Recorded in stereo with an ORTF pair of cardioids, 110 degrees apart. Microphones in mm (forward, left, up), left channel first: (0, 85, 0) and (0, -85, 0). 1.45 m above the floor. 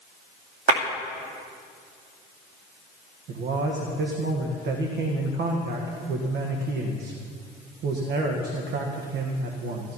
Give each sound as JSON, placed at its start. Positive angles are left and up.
{"t": 0.7, "sound": "a clap", "azimuth_deg": -60, "distance_m": 2.5}
{"t": 3.3, "sound": "a man speaking", "azimuth_deg": -65, "distance_m": 1.6}